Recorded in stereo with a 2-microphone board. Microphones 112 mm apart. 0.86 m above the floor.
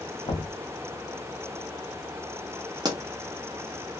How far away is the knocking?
About 1.1 m.